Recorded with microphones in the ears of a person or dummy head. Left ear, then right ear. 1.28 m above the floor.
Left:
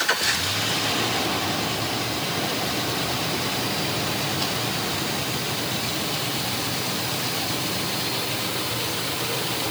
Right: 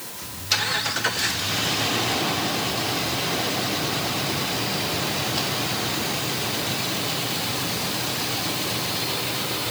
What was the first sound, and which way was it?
Only background noise.